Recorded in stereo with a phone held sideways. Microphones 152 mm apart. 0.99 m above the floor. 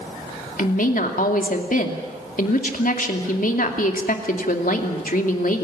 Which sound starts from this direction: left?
A woman speaking, at 0.6 s.